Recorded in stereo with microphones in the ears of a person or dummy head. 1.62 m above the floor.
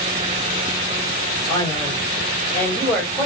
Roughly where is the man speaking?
Centre.